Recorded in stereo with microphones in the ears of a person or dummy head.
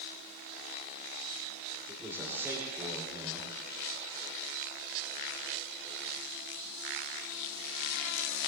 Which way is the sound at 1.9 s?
15° right (ahead or behind).